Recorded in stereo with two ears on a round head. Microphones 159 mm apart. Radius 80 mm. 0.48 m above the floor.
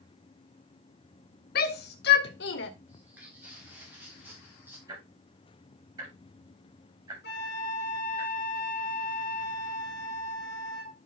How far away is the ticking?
About 8.5 m.